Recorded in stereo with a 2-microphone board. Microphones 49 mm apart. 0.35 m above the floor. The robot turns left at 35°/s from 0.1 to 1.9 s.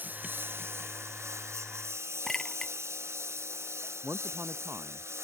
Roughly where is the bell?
I don't hear a bell.